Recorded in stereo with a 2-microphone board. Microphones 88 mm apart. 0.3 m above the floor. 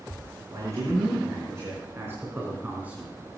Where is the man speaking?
35° right (ahead or behind), 5 m; by 3.1 s 15° right (ahead or behind), 3 m.